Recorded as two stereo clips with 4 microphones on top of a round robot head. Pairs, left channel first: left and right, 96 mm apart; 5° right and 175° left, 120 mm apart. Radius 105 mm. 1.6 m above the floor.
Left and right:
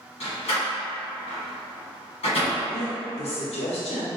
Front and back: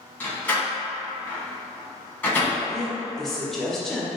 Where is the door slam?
70° left, 1.4 m.